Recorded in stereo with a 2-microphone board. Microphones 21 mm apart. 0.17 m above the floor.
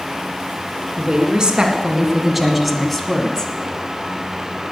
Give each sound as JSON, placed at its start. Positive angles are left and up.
{"t": 1.0, "sound": "a woman speaking", "side_deg": -45, "distance_m": 2.5}